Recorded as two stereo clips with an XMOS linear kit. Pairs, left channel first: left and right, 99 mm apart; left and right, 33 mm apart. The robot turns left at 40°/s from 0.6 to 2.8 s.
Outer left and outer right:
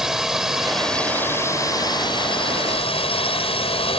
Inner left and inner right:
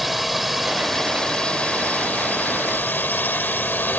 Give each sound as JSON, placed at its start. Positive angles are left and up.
{"t": 0.0, "sound": "a drone", "azimuth_deg": -175}